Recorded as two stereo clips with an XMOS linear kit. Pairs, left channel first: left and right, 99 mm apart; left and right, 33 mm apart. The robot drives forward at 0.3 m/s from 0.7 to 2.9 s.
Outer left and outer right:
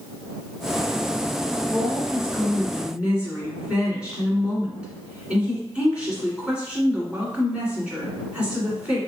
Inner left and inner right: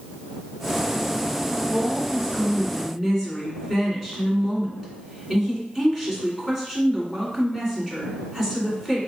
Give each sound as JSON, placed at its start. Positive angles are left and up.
{"t": 1.7, "sound": "a woman speaking", "side_deg": -15, "distance_m": 1.6}